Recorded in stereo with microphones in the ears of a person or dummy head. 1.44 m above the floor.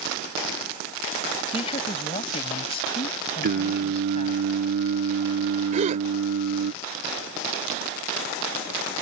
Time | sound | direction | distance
1.5 | a woman speaking | 35° left (ahead or behind) | ?
3.4 | singing | 55° right (ahead or behind) | ?
5.7 | a gasp | 40° right (ahead or behind) | ?